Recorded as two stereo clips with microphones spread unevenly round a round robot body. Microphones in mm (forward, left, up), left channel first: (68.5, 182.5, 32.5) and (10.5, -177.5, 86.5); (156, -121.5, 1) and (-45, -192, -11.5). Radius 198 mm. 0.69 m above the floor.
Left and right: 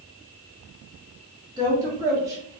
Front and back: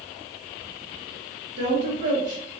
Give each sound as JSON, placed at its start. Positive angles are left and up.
{"t": 1.6, "sound": "a woman speaking", "azimuth_deg": 175, "distance_m": 1.6}